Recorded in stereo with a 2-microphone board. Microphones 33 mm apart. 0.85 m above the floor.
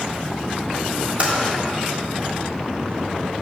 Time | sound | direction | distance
1.2 | typing on a keyboard | 45° right (ahead or behind) | 1.8 m